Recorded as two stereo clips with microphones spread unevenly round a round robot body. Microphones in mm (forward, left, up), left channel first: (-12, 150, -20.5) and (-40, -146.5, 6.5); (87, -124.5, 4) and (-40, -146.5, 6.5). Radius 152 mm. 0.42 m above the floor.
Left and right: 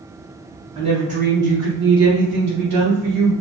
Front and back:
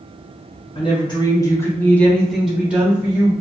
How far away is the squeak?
No squeak in this recording.